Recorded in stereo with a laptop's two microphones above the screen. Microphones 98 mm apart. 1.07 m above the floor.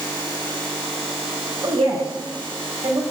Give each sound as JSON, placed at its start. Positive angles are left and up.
{"t": 1.6, "sound": "a woman speaking", "side_deg": -85, "distance_m": 5.5}